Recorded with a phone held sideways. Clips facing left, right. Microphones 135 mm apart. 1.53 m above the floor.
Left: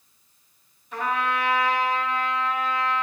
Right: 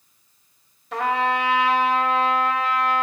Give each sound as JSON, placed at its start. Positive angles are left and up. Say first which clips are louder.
{"t": 0.9, "sound": "a trumpet", "louder": "right 4 dB", "side_deg": -75, "distance_m": 1.7}